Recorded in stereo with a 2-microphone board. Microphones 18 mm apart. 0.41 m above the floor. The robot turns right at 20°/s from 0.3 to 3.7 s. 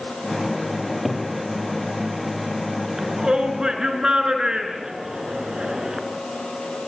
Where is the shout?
30° right (ahead or behind), 5.5 m; by 6.0 s 45° right (ahead or behind), 5.5 m.